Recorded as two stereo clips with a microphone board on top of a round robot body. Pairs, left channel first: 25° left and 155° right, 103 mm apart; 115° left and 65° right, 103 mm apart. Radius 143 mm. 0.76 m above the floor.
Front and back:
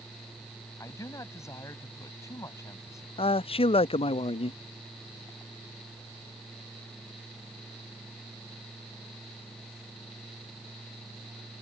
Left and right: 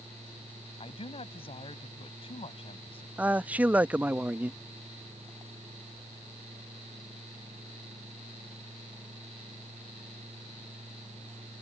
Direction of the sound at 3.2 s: 10° left.